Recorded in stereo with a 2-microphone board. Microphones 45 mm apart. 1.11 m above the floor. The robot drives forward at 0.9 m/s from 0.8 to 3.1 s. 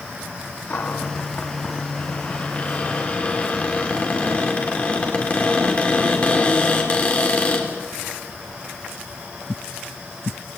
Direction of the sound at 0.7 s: 50° left (ahead or behind).